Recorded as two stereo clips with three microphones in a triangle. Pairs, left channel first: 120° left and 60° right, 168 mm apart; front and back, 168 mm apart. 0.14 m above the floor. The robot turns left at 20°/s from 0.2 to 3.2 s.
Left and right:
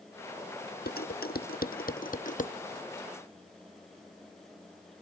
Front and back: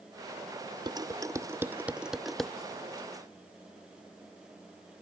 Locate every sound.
0.9 s dishes clattering: 120° left; by 2.5 s 85° left